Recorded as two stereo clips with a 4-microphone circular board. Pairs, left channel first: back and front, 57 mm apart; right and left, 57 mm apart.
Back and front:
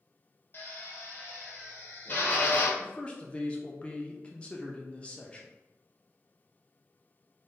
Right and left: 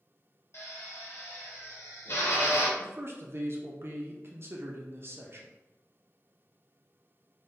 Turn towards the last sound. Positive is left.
turn(degrees=115)